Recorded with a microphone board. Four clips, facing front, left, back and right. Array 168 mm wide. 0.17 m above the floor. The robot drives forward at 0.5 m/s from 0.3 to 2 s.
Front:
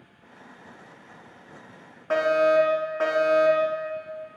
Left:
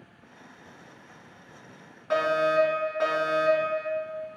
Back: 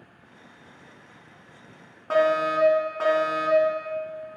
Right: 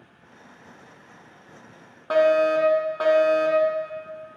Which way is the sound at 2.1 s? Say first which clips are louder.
Right 5 dB, front 2 dB; 95° right.